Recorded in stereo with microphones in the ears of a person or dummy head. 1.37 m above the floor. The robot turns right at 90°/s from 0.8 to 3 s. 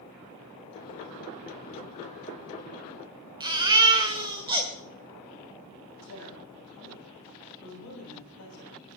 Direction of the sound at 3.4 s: 20° right (ahead or behind).